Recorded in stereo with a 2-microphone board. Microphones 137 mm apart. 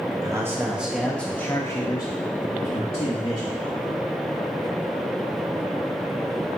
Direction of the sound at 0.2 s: 25° right (ahead or behind).